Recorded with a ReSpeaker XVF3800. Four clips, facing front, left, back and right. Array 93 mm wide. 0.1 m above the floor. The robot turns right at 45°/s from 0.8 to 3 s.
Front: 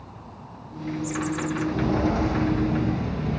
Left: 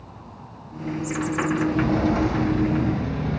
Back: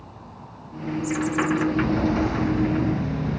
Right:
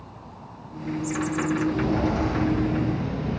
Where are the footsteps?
70° left, 1.9 m; by 3.4 s 110° left, 2.5 m.